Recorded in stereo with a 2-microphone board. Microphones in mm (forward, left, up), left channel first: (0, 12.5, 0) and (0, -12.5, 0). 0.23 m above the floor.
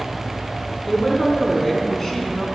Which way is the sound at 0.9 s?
15° left (ahead or behind).